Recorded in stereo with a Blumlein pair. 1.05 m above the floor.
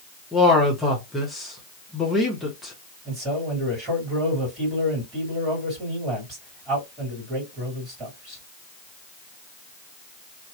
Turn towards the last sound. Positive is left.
turn(degrees=-25)